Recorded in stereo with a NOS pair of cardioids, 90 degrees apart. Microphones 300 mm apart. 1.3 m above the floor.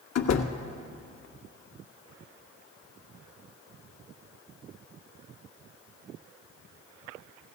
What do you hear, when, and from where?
0.1 s a door slam: 65° left, 1.3 m